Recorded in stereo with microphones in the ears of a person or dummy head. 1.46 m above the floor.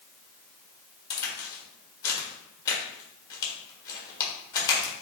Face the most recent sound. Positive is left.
turn(degrees=20)  # may be behind; listen again after turning